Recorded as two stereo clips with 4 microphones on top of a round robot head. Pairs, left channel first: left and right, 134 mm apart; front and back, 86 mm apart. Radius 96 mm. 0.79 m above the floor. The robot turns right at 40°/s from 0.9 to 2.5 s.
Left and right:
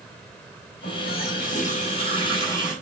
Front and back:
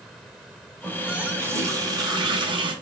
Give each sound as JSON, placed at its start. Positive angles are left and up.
{"t": 0.8, "sound": "a running tap", "azimuth_deg": 100, "distance_m": 2.5}